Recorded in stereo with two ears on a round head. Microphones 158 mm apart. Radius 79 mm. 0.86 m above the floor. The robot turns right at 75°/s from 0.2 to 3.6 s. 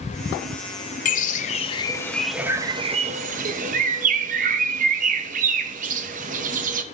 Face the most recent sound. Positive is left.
turn(degrees=-45)  # may be behind; listen again after turning